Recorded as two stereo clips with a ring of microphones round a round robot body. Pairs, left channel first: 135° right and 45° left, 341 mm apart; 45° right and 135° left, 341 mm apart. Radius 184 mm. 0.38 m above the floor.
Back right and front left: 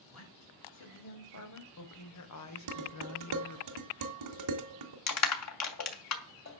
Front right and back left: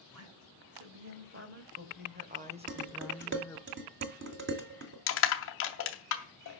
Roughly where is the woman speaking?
Behind.